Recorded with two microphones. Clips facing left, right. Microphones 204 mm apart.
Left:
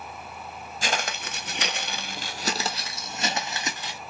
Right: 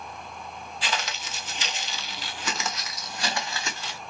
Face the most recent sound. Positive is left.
turn(degrees=15)  # may be behind; listen again after turning